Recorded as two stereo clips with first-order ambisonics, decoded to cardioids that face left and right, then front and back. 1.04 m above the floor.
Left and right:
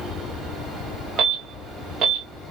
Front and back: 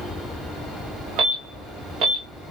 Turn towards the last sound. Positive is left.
turn(degrees=-145)